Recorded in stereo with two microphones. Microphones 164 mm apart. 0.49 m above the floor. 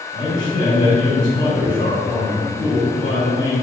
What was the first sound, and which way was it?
A man speaking, 55° left (ahead or behind).